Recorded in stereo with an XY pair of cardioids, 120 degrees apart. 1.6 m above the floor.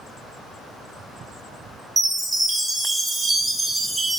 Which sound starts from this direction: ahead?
A chime, at 2.0 s.